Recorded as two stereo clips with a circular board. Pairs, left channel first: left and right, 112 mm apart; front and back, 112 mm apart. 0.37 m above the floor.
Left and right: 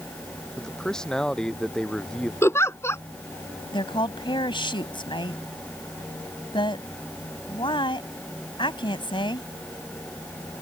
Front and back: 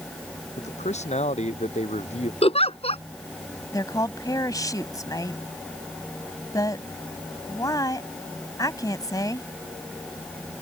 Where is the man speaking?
5° left.